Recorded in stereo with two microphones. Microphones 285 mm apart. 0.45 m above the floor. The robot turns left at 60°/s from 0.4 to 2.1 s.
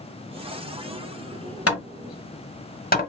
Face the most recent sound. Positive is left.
turn(degrees=30)  # may be behind; listen again after turning